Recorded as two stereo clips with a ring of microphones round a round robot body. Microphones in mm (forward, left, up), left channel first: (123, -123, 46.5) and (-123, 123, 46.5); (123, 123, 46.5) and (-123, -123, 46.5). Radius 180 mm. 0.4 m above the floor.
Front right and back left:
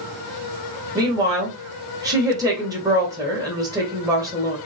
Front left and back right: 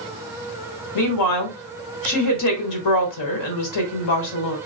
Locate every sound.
0.9 s a woman speaking: 55° left, 1.4 m